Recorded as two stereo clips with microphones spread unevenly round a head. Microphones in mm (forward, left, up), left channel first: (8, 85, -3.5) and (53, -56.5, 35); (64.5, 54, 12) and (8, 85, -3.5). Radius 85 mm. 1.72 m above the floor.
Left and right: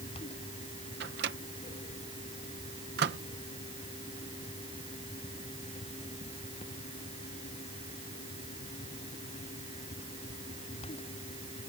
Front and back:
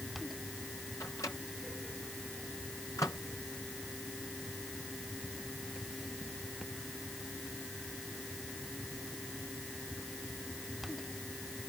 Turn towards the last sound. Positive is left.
turn(degrees=-95)